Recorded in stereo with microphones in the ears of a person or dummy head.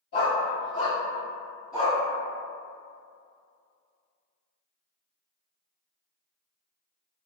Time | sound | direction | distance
0.1 | a dog barking | 50° left (ahead or behind) | 1.5 m